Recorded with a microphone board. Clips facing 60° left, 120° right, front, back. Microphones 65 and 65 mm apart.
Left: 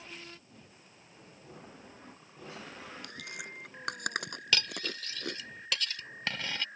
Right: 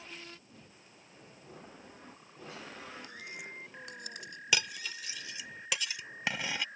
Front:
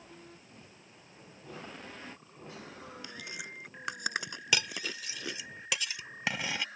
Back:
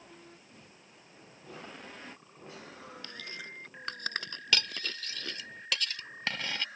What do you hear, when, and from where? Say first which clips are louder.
3.0 s chewing: left 1 dB, even; 80° left
4.5 s cutlery clinking: even, even; 60° right